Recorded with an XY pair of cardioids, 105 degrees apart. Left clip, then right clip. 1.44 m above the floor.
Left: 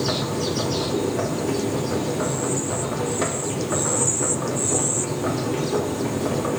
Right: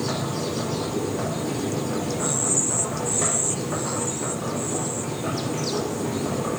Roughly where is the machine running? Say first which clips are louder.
Left 3 dB; ahead left.